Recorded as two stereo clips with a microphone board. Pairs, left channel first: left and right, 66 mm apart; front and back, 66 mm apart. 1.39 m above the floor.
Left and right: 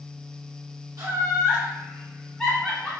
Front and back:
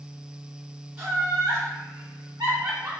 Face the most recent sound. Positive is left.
turn(degrees=155)